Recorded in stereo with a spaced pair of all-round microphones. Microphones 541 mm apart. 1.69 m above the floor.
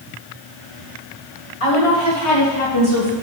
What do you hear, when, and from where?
1.6 s a woman speaking: 65° left (ahead or behind), 2.5 m; by 3.1 s 40° left (ahead or behind), 2.5 m